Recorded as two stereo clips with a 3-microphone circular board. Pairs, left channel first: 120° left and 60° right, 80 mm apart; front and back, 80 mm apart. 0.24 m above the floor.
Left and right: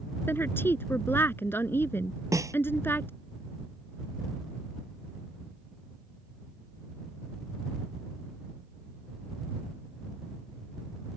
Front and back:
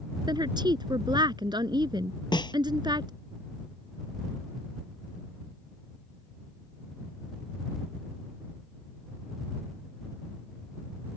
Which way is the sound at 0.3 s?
Straight behind.